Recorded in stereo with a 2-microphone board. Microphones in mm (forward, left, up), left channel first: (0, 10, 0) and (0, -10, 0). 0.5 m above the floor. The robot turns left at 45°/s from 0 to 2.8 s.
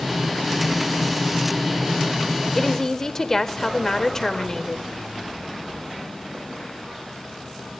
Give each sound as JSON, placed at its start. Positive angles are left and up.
{"t": 2.5, "sound": "a woman speaking", "side_deg": 10, "distance_m": 1.7}